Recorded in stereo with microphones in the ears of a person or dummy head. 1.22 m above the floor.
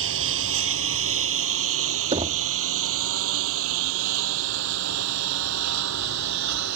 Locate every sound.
0.0 s a lawn mower: 80° right; by 6.8 s 70° right (ahead or behind)
2.1 s knocking: 30° right (ahead or behind)